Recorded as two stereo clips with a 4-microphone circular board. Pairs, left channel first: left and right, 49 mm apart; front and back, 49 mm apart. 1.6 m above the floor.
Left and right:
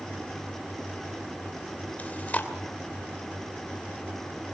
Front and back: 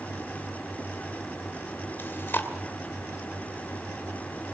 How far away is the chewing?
About 2.5 m.